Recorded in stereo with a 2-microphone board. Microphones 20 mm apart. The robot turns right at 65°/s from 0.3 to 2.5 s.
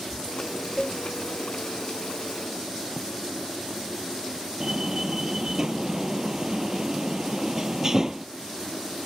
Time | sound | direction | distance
0.8 | a cowbell | centre (ahead or behind) | ?
3.0 | writing | 5° right (ahead or behind) | ?
4.6 | a door slam | 25° right (ahead or behind) | ?